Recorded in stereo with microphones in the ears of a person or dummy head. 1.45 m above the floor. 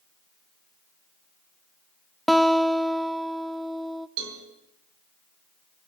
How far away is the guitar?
About 0.7 m.